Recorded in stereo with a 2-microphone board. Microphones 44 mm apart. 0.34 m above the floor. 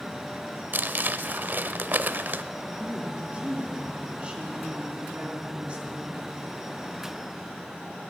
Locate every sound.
0.7 s crumpling: 45° right (ahead or behind), 0.7 m
2.8 s a woman speaking: 25° right (ahead or behind), 3.5 m